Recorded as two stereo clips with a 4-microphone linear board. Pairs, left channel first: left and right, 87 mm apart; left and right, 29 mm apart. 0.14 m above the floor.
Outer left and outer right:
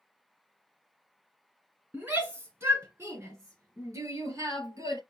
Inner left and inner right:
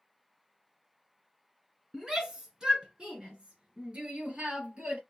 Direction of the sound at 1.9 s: 20° right (ahead or behind).